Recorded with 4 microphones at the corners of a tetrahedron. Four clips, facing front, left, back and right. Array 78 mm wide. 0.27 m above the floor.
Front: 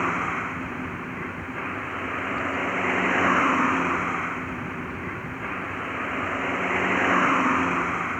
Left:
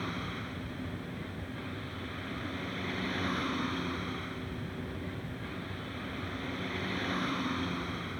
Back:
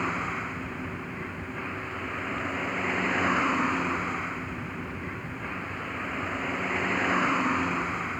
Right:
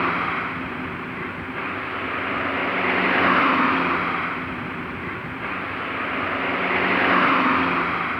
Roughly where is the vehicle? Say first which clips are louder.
Right 15 dB, front 4 dB; ahead right.